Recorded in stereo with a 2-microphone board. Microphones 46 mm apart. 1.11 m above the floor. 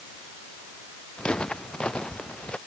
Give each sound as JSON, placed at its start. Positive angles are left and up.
{"t": 1.2, "sound": "footsteps", "side_deg": 20}